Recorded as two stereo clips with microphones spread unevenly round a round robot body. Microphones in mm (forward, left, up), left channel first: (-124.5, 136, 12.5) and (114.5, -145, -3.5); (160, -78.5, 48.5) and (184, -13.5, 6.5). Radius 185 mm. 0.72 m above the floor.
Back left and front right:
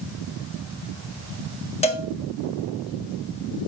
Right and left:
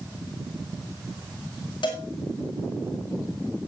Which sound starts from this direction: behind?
A cowbell, at 1.8 s.